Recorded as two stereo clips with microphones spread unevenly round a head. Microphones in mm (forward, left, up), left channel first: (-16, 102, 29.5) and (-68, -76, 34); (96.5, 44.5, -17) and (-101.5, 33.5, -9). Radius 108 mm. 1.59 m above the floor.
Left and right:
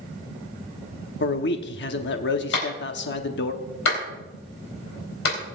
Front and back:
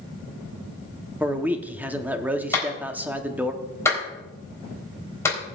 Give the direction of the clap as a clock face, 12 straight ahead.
9 o'clock.